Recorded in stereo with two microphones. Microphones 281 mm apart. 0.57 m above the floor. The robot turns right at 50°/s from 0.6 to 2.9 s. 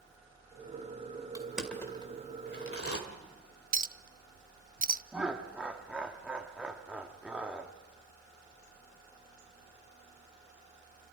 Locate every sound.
1.4 s crushing: 15° right (ahead or behind), 2.5 m; by 3.0 s 55° left (ahead or behind), 2.5 m
3.7 s a clink: 30° right (ahead or behind), 0.5 m
5.1 s laughter: 5° right (ahead or behind), 0.9 m